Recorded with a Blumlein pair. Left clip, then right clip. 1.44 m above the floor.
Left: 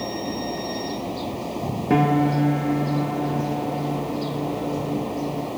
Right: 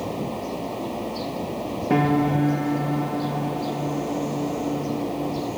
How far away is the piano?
About 1.4 m.